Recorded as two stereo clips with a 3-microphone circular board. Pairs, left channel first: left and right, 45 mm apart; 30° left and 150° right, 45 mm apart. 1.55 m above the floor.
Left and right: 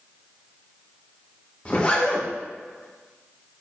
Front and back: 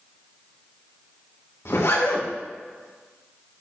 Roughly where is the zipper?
Ahead left.